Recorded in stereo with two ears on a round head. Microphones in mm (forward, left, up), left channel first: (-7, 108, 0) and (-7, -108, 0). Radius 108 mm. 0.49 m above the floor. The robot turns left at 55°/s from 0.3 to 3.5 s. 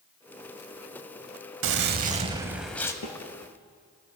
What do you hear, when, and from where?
1.6 s a gunshot: 125° right, 0.7 m; by 2.9 s 165° left, 0.7 m
3.0 s a snare drum: 65° left (ahead or behind), 1.8 m; by 3.2 s 55° left (ahead or behind), 1.8 m